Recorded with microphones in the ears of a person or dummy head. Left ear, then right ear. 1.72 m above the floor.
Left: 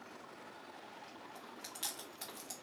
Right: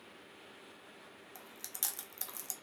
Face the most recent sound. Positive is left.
turn(degrees=-15)  # may be behind; listen again after turning